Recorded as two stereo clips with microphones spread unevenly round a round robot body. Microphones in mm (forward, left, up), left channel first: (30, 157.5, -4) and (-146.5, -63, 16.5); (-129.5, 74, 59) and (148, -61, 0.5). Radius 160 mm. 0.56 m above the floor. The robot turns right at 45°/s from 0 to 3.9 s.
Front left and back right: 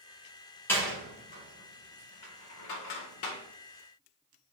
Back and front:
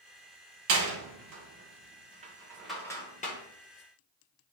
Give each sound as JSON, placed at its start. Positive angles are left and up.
{"t": 0.7, "sound": "a door slam", "azimuth_deg": -30, "distance_m": 1.4}